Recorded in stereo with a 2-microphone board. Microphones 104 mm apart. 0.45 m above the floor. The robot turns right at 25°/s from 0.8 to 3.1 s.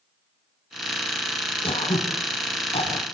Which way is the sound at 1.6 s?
65° left (ahead or behind).